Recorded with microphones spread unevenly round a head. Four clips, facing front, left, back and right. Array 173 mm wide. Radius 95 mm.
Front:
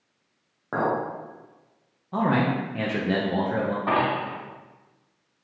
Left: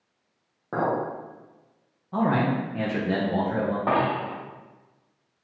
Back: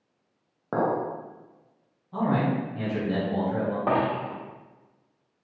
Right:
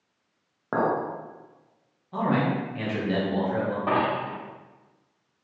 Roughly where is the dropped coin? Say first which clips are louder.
Even, even; behind.